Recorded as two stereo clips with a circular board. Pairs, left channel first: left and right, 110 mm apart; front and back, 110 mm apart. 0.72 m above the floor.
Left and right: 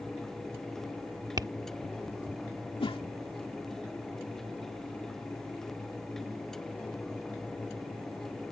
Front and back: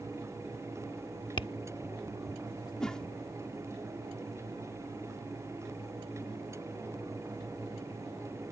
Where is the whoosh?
80° left.